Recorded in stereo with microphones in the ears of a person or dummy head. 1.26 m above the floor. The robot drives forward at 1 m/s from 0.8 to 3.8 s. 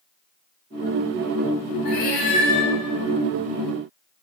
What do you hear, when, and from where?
1.9 s a cat meowing: 55° left (ahead or behind), 2.5 m; by 2.7 s 40° left (ahead or behind), 3 m